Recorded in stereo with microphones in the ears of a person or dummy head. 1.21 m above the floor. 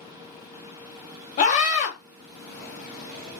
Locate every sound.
1.4 s a scream: 35° left (ahead or behind), 0.8 m